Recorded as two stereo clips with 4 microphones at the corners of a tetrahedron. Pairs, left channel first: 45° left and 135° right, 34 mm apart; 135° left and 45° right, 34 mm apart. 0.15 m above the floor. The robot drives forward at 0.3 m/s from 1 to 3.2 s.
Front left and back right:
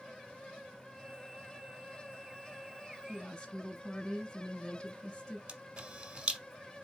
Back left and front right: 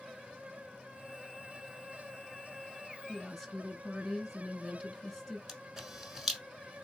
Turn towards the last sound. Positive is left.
turn(degrees=-125)